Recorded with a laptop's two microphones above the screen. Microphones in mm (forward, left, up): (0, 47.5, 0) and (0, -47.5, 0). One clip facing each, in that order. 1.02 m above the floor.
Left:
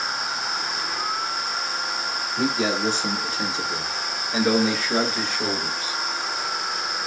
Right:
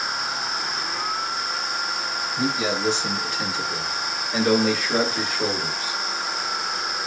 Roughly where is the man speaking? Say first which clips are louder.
Left 1 dB; left.